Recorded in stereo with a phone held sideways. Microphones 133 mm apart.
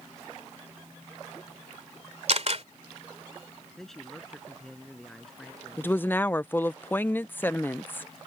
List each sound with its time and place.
2.3 s a camera shutter: 55° right (ahead or behind)
3.8 s a man speaking: 5° left (ahead or behind)
5.8 s a woman speaking: 15° left (ahead or behind)